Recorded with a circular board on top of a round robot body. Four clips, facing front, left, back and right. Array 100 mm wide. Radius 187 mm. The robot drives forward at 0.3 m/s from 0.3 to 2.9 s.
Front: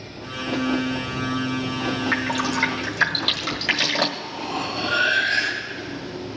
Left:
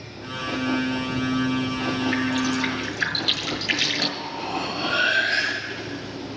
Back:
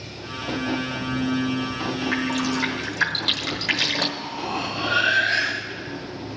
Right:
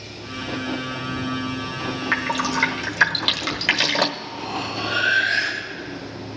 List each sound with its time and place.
2.1 s dripping: 75° right, 1.4 m; by 4.1 s 85° right, 1.3 m
4.2 s cutlery clinking: 165° left, 6 m